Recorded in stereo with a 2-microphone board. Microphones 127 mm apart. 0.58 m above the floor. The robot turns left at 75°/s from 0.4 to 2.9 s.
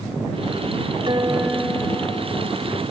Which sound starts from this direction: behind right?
A guitar, at 1.1 s.